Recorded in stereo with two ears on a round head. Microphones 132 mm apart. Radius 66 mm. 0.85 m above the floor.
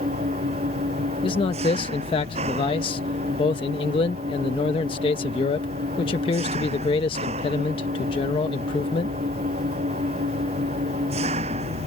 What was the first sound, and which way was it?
An engine running, 45° right (ahead or behind).